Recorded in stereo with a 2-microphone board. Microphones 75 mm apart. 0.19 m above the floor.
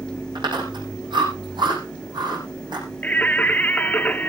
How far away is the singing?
About 1.1 m.